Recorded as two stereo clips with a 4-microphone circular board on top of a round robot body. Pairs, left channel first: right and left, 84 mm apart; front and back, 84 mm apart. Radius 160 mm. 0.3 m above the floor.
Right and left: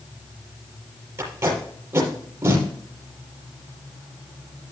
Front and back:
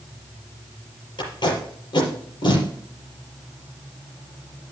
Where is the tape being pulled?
30° left, 5 m.